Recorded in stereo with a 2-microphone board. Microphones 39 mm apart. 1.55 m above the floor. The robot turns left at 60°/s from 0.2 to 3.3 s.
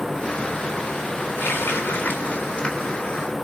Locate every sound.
1.4 s a running tap: 110° left, 3 m; by 3.0 s 15° left, 3 m